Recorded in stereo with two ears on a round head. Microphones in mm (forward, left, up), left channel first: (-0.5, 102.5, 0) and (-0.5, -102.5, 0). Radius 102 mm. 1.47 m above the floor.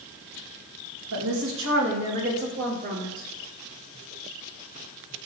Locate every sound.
1.1 s a woman speaking: 65° right (ahead or behind), 2 m; by 3.3 s 40° right (ahead or behind), 3.5 m